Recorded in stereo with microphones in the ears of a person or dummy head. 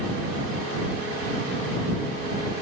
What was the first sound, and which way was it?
Only background noise.